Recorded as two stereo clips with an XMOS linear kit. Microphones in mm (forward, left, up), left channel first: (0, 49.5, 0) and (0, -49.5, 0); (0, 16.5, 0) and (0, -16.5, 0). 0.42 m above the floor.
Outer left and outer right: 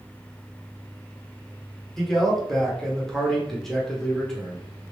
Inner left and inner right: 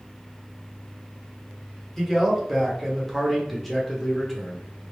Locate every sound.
2.0 s a man speaking: 5° left (ahead or behind), 1.0 m